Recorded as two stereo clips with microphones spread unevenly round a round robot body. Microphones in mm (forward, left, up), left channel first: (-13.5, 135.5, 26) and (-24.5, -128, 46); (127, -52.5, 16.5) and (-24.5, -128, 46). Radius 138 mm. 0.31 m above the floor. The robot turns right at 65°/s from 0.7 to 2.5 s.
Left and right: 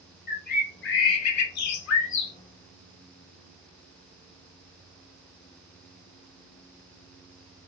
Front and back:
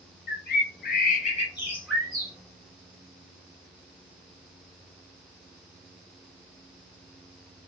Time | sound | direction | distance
0.3 | a bird | 35° left | 0.6 m